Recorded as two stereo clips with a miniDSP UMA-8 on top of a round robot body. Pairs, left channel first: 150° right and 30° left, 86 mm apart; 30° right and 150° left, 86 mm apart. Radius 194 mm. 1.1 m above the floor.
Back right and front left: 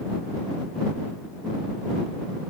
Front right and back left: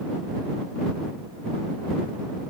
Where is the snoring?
No snoring in this recording.